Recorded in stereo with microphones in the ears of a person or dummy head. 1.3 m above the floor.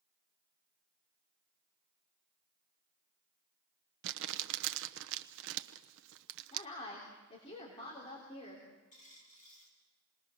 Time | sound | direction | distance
4.0 | crumpling | 65° right (ahead or behind) | 0.9 m
6.5 | a woman speaking | 30° left (ahead or behind) | 3.5 m
8.9 | a dropped coin | 35° left (ahead or behind) | 5 m